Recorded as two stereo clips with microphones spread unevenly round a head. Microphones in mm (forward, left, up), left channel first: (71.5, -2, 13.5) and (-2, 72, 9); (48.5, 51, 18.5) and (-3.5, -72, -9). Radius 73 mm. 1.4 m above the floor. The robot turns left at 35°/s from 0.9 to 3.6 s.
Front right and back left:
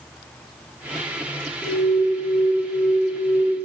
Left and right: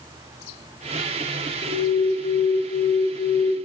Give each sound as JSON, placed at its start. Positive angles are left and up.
{"t": 1.6, "sound": "an alarm", "azimuth_deg": -105, "distance_m": 4.0}